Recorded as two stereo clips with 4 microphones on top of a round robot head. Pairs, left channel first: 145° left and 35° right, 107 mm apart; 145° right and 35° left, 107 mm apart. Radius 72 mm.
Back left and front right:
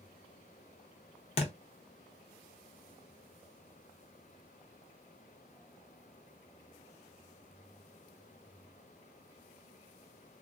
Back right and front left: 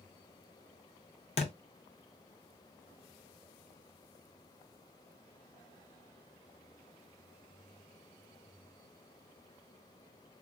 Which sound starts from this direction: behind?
A thud, at 1.4 s.